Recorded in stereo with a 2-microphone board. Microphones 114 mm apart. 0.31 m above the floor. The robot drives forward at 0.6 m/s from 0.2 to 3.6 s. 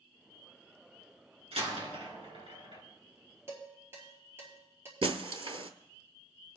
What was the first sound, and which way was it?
A door slam, 65° right (ahead or behind).